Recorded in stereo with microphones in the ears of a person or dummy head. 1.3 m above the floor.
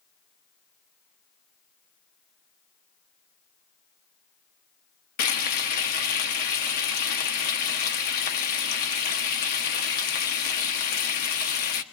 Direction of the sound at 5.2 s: 45° left (ahead or behind).